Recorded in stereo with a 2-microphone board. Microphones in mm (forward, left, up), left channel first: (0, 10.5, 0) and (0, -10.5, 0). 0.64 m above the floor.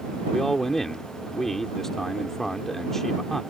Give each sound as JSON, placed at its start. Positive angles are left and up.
{"t": 0.3, "sound": "a man speaking", "side_deg": 20}